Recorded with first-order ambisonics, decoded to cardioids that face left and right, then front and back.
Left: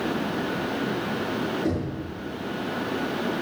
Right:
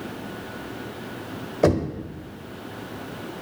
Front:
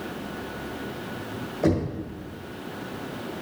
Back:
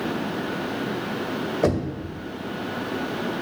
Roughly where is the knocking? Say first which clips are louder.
Right 7 dB, even; right.